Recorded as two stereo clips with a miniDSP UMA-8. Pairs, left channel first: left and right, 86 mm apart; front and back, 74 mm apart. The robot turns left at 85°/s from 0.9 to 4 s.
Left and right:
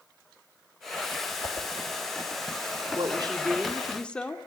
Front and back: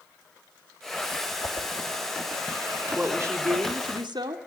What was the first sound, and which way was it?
A whoosh, 50° left.